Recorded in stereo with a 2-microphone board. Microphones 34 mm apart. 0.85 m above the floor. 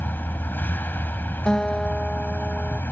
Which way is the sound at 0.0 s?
85° left.